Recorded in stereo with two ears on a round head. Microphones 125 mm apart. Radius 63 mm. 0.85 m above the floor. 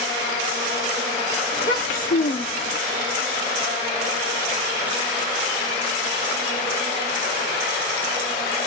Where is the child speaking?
60° left (ahead or behind), 1.6 m; by 2.8 s 65° left (ahead or behind), 1.0 m.